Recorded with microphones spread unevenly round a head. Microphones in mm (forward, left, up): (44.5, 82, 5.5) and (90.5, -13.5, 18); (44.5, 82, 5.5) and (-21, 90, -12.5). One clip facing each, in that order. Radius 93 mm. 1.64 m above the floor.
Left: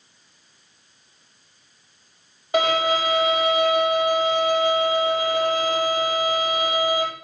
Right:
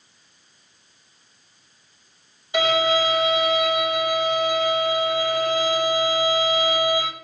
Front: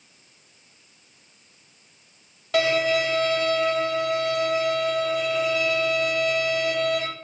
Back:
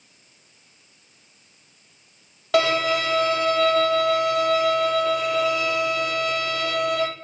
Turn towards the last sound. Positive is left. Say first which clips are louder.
# even, back 1 dB
turn(degrees=180)